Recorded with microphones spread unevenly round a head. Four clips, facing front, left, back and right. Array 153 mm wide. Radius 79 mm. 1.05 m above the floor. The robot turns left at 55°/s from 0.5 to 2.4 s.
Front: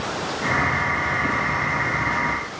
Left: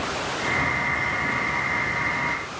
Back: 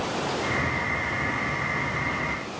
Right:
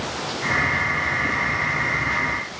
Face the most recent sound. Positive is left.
No sound to turn to.